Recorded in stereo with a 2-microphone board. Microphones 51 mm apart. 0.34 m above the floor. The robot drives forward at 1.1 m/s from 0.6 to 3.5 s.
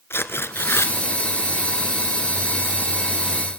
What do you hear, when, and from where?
0.1 s tearing paper: 55° left (ahead or behind), 1.5 m; by 0.9 s 70° left (ahead or behind), 1.3 m